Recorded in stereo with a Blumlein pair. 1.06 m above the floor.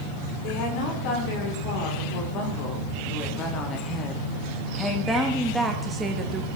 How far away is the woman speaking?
About 4.5 m.